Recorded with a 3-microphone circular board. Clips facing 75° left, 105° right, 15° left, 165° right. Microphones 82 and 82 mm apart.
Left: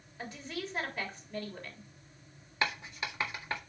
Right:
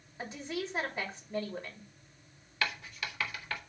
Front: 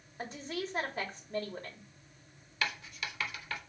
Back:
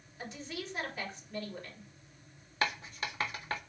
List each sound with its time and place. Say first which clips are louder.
0.2 s a woman speaking: right 3 dB, front 4 dB; 35° right, 3.5 m
2.6 s writing: left 2 dB, back 3 dB; 140° left, 1.6 m